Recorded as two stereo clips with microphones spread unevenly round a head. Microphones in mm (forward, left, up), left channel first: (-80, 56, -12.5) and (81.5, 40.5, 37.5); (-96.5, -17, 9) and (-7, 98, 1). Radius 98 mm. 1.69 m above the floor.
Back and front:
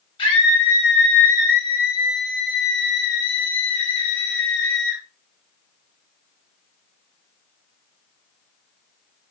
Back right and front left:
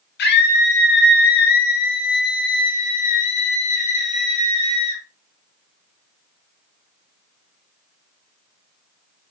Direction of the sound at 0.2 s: 120° right.